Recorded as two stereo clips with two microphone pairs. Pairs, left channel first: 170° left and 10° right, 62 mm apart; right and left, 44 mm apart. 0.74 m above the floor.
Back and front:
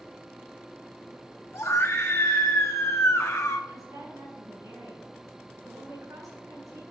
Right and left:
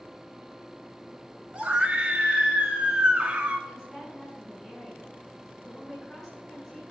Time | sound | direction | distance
1.5 | a scream | 155° left | 1.4 m
3.7 | a woman speaking | 20° right | 6.5 m